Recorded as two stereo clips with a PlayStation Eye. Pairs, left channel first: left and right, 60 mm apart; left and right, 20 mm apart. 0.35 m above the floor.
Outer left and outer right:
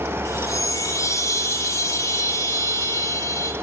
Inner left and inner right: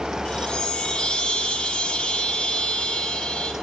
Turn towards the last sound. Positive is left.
turn(degrees=60)  # may be behind; listen again after turning